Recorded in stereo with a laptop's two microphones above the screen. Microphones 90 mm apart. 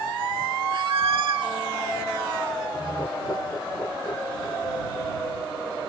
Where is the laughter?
45° left (ahead or behind).